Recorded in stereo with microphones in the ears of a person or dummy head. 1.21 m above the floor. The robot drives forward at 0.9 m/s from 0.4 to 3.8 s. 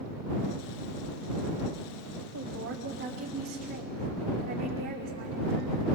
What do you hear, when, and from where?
2.3 s a woman speaking: 70° right (ahead or behind), 2.5 m; by 5.9 s 45° right (ahead or behind), 3 m